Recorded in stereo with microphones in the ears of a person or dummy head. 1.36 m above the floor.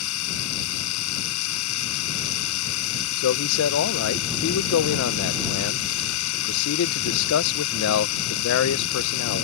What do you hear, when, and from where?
0.0 s a machine running: 75° left (ahead or behind)
3.2 s a man speaking: 80° left